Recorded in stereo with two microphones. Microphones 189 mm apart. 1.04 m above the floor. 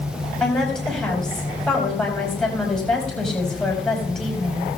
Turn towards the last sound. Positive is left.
turn(degrees=5)  # may be behind; listen again after turning